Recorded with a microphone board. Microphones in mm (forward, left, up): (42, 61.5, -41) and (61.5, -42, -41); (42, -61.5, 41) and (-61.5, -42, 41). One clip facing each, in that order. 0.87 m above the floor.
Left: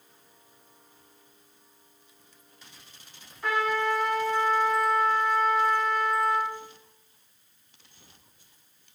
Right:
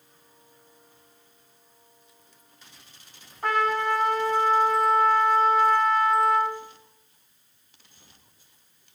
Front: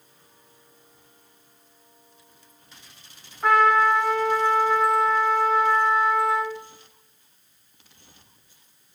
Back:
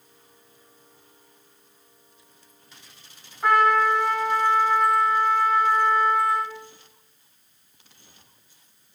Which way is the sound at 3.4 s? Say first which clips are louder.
Right 2 dB, front 1 dB; 110° right.